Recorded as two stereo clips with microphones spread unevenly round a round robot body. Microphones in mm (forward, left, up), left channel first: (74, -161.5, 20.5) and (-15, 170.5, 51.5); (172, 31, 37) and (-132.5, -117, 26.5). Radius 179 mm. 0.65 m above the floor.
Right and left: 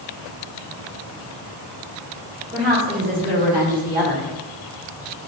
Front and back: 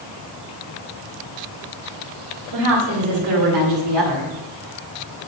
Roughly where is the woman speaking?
Behind.